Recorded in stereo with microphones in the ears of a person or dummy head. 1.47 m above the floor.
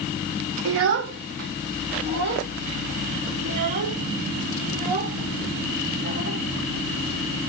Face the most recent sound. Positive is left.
turn(degrees=-40)  # may be behind; listen again after turning